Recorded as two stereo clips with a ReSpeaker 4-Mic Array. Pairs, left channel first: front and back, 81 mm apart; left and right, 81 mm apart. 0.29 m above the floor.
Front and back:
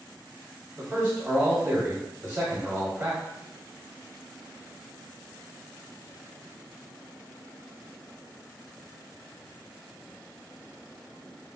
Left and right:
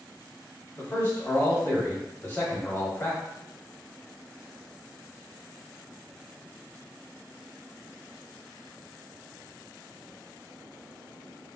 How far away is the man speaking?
About 1.1 m.